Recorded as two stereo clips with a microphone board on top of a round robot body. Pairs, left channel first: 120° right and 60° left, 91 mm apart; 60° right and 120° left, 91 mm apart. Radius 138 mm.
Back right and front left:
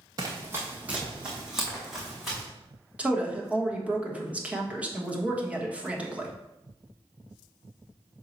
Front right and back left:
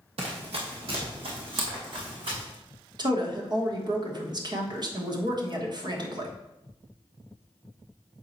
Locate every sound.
0.2 s running footsteps: 110° left, 1.1 m; by 2.4 s 155° left, 3 m
3.0 s a woman speaking: 135° left, 1.4 m